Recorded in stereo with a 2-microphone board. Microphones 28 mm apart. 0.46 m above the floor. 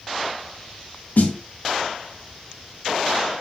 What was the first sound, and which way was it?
A snare drum, 75° left (ahead or behind).